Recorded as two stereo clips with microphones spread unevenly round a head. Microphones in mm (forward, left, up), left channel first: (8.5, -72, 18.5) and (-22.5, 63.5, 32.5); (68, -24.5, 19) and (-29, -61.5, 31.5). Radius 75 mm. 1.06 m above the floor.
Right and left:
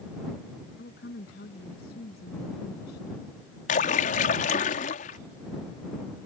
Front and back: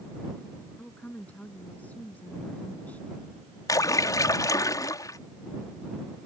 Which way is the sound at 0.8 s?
55° right.